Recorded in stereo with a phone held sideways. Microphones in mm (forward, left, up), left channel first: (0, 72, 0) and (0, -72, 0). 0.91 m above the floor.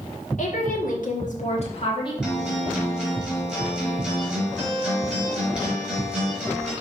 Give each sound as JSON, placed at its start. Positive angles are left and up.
{"t": 0.4, "sound": "a woman speaking", "side_deg": 65, "distance_m": 1.9}
{"t": 2.2, "sound": "a guitar", "side_deg": -5, "distance_m": 4.0}